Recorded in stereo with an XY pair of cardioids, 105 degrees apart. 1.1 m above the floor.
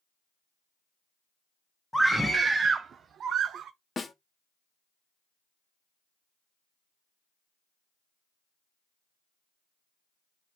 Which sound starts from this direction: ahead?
A scream, at 1.9 s.